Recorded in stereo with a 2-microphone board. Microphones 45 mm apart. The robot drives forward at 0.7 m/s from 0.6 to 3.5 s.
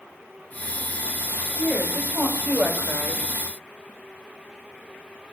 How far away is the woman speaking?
About 3.5 m.